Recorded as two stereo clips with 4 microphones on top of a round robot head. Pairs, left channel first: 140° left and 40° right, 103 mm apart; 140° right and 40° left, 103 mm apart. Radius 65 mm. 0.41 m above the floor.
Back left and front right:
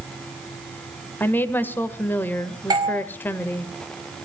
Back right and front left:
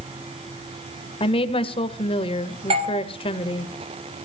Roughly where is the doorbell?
Ahead.